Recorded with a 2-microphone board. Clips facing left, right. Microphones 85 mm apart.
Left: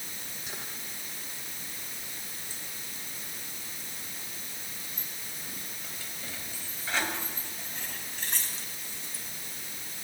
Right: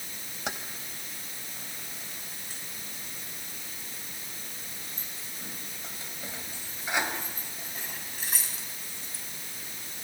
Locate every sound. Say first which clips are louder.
0.5 s keys jangling: right 8 dB; 85° right, 3 m; by 10.0 s centre (ahead or behind), 5 m